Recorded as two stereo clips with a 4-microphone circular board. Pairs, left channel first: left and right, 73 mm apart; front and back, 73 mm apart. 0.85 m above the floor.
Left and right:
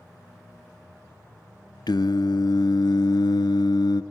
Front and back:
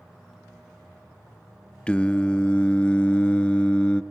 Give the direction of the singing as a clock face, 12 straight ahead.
9 o'clock.